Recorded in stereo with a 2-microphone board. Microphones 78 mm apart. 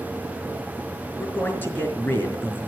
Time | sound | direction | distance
1.2 | a man speaking | 30° left (ahead or behind) | 5 m